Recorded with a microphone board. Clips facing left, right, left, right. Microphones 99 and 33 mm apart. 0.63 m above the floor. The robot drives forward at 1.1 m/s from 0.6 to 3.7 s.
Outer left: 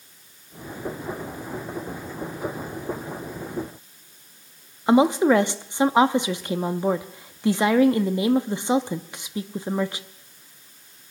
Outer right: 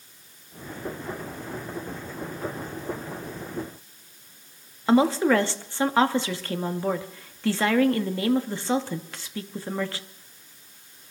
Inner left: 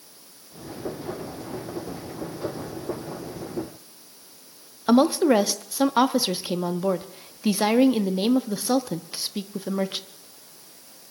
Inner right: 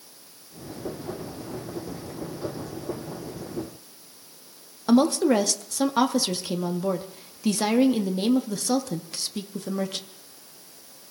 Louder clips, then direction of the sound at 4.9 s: Outer left 3 dB, inner left 2 dB; 15° left (ahead or behind).